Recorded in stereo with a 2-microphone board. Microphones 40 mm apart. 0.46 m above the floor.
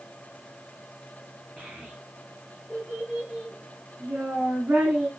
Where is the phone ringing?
No phone ringing in this recording.